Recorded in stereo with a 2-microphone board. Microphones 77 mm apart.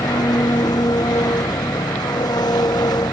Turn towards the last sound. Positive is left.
turn(degrees=65)  # may be behind; listen again after turning